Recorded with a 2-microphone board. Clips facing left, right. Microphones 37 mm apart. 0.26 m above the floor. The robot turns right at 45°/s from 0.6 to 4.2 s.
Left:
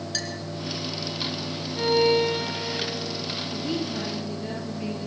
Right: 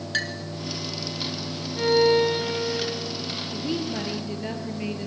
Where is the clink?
40° right (ahead or behind), 1.8 m.